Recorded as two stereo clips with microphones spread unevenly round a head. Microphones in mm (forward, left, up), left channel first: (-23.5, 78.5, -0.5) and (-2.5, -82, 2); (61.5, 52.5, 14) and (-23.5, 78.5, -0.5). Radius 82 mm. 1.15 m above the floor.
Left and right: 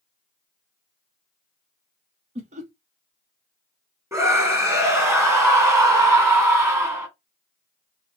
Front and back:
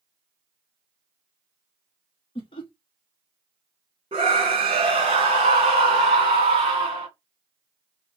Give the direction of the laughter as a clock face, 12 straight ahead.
1 o'clock.